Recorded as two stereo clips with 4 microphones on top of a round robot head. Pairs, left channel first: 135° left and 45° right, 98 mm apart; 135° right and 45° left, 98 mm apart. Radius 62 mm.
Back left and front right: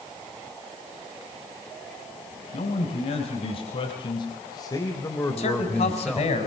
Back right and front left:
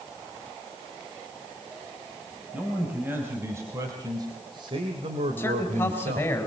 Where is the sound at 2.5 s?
120° left, 4 m; by 6.4 s 40° left, 2.5 m.